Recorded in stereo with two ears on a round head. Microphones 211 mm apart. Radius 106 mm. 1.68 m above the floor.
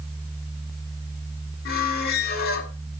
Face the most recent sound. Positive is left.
turn(degrees=45)  # may be behind; listen again after turning